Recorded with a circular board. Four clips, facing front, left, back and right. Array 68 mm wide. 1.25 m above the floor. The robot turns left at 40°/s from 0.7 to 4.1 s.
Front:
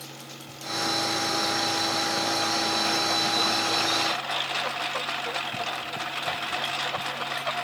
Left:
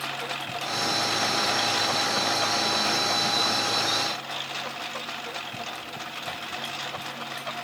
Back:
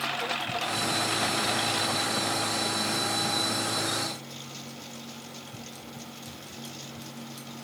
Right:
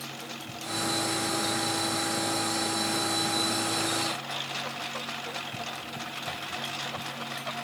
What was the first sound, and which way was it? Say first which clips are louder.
A lawn mower: left 8 dB, back 12 dB; 145° left.